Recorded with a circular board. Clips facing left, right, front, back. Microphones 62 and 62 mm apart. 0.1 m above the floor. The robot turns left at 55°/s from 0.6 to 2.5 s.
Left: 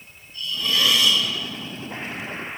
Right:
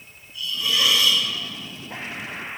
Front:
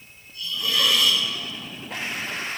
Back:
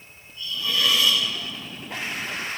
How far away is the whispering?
No whispering in this recording.